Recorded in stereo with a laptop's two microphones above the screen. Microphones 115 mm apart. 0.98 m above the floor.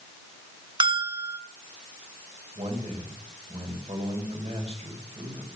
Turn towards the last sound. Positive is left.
turn(degrees=-60)  # may be behind; listen again after turning